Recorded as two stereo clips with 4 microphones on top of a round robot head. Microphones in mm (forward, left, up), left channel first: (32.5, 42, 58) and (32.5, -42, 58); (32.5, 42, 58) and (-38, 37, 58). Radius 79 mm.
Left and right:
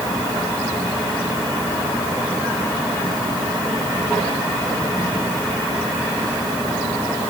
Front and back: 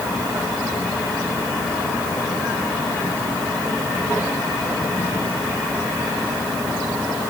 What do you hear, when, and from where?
Only background noise.